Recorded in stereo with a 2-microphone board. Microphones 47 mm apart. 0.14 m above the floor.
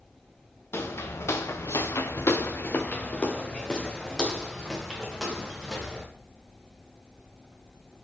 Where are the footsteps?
60° left (ahead or behind), 1.0 m; by 6.0 s 5° right (ahead or behind), 2 m.